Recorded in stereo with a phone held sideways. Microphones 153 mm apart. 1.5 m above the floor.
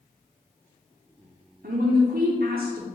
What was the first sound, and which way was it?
A woman speaking, 80° right.